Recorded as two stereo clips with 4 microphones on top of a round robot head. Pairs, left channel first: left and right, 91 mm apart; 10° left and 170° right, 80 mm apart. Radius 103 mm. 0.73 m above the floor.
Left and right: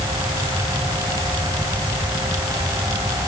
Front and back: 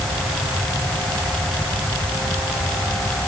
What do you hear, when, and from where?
Only background noise.